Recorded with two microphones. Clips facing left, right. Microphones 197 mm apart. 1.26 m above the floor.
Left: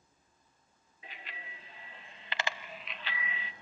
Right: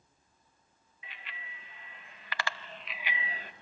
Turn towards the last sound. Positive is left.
turn(degrees=-55)  # may be behind; listen again after turning